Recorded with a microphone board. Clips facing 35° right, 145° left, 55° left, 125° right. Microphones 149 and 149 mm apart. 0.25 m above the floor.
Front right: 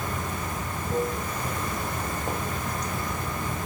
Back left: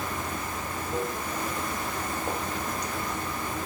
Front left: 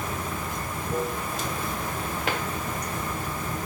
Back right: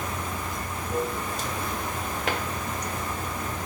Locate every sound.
0.0 s running water: straight ahead, 1.1 m